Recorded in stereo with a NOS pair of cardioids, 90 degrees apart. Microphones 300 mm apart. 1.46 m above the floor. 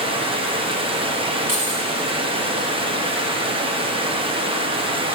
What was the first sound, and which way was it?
Running water, 20° right.